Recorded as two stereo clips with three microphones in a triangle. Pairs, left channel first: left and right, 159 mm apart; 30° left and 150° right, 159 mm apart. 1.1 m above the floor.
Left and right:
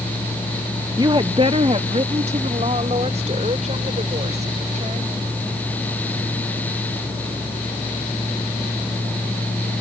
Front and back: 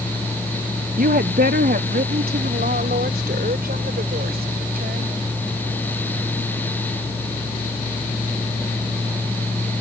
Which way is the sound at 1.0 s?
150° right.